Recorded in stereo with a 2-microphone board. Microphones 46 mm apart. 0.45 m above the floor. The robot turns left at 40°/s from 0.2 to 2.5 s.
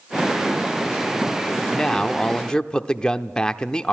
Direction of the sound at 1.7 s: 15° left (ahead or behind).